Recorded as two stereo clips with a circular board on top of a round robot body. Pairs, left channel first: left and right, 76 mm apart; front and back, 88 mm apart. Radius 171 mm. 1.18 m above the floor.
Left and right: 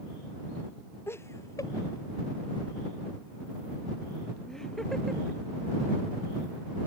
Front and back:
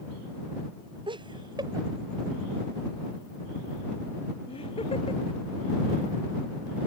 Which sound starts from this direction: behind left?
Laughter, at 1.1 s.